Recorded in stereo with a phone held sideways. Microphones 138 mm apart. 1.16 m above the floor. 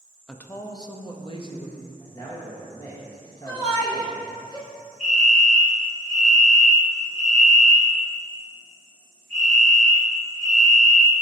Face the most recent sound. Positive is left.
turn(degrees=65)  # may be behind; listen again after turning